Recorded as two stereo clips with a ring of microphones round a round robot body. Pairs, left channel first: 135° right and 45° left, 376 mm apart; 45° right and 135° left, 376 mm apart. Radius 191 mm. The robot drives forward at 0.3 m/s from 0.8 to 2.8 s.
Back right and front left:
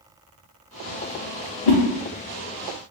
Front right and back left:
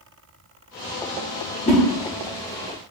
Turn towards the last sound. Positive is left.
turn(degrees=-135)